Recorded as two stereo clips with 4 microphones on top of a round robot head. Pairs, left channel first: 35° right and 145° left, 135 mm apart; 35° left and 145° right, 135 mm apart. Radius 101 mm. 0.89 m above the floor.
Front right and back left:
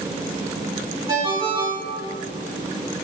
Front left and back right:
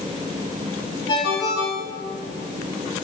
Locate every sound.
1.1 s a ringtone: 90° left, 2.5 m